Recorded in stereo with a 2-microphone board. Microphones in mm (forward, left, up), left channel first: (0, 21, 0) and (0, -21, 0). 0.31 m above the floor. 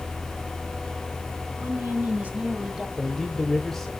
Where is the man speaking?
10° left (ahead or behind), 1.1 m.